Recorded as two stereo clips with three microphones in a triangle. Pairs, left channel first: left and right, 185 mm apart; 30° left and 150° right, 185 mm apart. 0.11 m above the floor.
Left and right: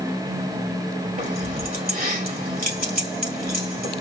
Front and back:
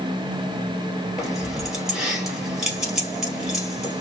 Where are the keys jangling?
65° right, 1.9 m.